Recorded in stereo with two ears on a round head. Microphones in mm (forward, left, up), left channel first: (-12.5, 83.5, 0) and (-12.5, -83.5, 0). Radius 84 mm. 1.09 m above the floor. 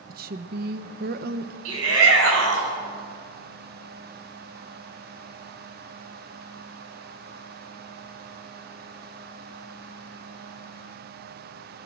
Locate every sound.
0.1 s a woman speaking: 50° right (ahead or behind), 1.2 m
1.6 s a shout: 80° right, 7.5 m